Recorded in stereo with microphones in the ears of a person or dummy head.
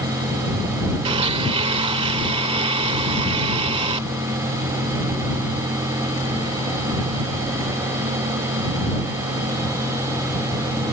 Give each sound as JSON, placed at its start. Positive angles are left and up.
{"t": 1.1, "sound": "a blender", "side_deg": -25}